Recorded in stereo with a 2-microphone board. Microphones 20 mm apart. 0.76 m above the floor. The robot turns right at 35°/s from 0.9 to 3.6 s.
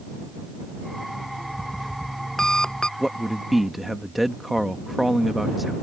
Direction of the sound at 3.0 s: 15° right (ahead or behind).